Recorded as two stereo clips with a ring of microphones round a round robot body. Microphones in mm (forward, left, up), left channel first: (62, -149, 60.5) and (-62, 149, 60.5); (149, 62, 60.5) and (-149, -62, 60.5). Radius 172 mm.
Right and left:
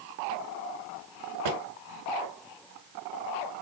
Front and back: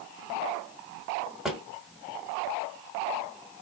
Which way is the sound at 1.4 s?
115° left.